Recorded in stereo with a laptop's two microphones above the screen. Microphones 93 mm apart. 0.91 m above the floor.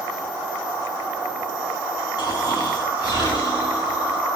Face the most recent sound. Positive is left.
turn(degrees=45)  # may be behind; listen again after turning